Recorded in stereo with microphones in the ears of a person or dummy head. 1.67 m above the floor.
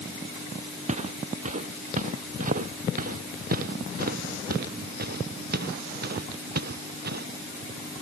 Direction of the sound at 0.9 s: 40° right (ahead or behind).